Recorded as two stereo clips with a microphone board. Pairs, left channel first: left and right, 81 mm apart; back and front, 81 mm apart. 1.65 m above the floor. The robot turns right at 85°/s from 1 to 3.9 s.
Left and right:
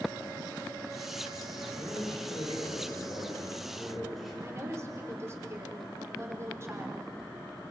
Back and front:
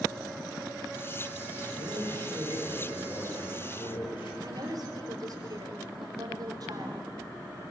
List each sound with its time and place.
1.7 s a man speaking: 10° right, 8.5 m; by 4.3 s straight behind, 8.5 m
4.4 s a woman speaking: 35° right, 4.5 m